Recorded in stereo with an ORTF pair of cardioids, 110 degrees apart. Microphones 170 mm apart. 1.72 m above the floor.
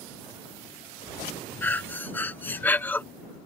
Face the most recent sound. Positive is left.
turn(degrees=10)